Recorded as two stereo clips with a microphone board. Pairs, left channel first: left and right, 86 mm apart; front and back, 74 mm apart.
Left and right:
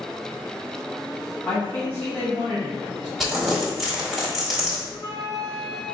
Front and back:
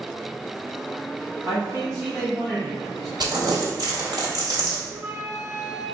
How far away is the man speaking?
About 1.7 m.